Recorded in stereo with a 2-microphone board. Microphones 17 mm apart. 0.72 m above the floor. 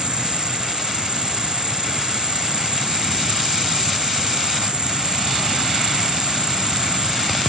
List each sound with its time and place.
0.0 s an insect: 60° right (ahead or behind)